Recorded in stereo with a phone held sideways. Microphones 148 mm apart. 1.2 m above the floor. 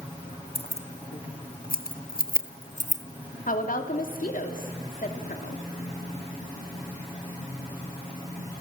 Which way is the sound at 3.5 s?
70° left (ahead or behind).